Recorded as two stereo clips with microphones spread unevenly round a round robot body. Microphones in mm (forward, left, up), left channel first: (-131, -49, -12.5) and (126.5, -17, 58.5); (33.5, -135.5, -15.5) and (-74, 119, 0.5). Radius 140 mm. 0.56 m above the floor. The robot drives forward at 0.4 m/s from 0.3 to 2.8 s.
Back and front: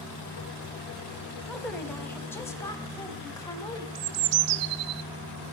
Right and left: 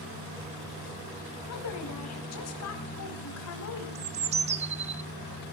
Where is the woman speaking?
90° right, 3.5 m; by 3.9 s 100° right, 3.5 m.